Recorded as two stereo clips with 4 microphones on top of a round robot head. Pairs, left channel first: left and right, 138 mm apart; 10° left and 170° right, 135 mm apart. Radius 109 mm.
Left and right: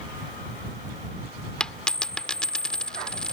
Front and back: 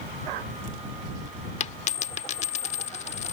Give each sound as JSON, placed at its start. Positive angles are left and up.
{"t": 1.6, "sound": "a dropped coin", "azimuth_deg": 10}